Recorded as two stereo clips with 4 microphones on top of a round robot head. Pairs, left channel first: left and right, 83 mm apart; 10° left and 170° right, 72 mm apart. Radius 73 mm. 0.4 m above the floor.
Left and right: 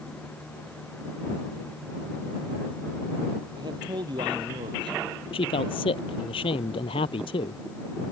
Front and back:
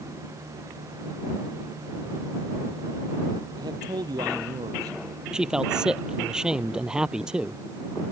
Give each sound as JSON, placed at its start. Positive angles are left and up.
{"t": 3.5, "sound": "a man speaking", "azimuth_deg": -135}
{"t": 5.3, "sound": "a man speaking", "azimuth_deg": 110}